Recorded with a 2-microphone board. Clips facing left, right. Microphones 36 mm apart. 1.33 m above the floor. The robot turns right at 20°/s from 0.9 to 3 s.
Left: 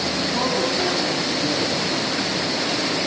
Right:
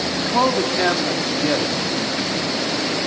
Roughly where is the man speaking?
Right.